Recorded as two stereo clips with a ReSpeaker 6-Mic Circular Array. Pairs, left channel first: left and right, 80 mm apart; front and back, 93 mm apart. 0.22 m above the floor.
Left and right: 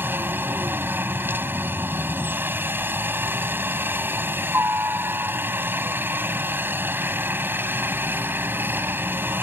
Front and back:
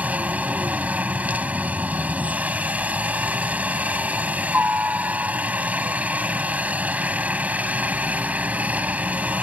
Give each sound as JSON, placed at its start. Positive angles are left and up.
{"t": 0.0, "sound": "a helicopter", "azimuth_deg": -120}